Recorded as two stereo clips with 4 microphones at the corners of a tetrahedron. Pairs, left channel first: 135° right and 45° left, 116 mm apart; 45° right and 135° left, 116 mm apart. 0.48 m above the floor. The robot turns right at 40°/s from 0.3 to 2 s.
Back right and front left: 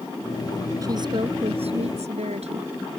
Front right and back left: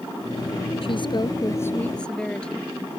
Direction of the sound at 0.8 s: 10° right.